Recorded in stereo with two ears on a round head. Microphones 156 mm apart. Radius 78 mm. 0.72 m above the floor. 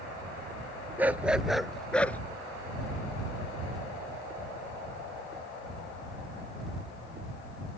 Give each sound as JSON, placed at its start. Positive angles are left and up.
{"t": 1.0, "sound": "a dog barking", "side_deg": -10}